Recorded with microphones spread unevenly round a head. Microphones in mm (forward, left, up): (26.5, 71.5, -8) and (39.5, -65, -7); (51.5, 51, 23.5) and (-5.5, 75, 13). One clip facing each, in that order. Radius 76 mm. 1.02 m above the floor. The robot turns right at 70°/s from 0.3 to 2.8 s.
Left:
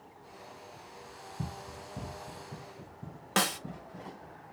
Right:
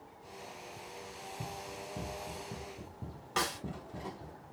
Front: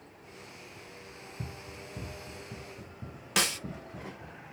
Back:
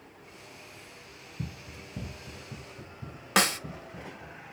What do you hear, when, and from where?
1.4 s running footsteps: 115° left, 1.2 m; by 4.4 s 85° right, 2.5 m
3.4 s a snare drum: 125° left, 0.8 m